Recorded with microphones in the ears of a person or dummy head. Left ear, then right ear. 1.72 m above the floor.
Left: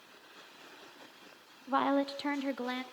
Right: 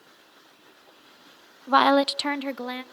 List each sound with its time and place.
1.7 s a woman speaking: 75° right (ahead or behind), 0.5 m; by 2.8 s 5° right (ahead or behind), 0.9 m